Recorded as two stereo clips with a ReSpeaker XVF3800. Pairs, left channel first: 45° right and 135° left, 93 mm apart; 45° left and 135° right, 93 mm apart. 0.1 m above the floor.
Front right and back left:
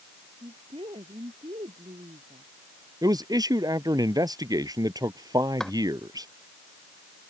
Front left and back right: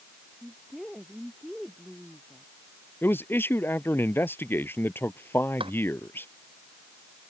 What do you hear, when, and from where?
0.3 s a woman speaking: 140° left; by 2.5 s 130° left
3.0 s a man speaking: 105° left
5.6 s a drawer: 130° right